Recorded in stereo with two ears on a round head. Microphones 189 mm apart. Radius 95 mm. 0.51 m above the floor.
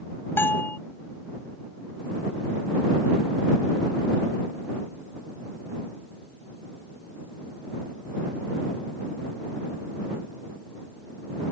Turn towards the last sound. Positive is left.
turn(degrees=10)  # may be behind; listen again after turning